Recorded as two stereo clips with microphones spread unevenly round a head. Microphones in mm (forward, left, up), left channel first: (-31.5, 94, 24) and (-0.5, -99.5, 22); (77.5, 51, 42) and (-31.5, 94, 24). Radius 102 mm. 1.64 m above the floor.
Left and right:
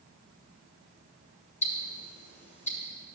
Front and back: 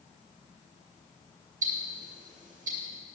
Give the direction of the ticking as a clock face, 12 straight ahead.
7 o'clock.